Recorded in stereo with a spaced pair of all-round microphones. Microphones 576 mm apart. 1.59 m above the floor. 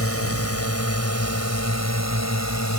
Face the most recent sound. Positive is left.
turn(degrees=30)  # may be behind; listen again after turning